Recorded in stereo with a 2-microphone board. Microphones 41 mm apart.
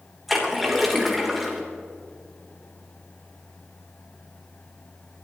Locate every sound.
0.3 s a splash: centre (ahead or behind), 3 m